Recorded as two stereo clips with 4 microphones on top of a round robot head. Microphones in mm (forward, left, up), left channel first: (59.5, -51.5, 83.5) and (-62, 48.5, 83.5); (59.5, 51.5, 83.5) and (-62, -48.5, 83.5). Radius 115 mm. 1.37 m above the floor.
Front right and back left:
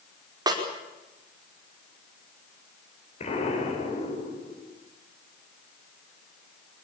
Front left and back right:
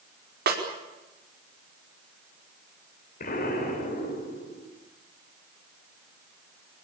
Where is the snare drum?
155° right, 5 m.